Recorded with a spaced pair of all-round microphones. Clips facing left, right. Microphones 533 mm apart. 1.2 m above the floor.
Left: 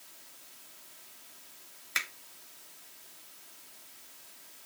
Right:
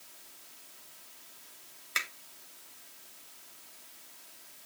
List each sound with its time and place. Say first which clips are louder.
1.9 s a finger snap: right 1 dB; 10° left (ahead or behind), 1.1 m